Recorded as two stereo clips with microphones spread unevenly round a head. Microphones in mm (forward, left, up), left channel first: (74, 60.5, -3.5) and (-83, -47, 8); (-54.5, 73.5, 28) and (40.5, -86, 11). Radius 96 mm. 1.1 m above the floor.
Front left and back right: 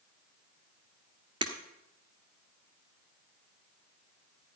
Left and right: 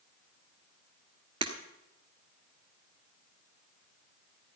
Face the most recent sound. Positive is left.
turn(degrees=-110)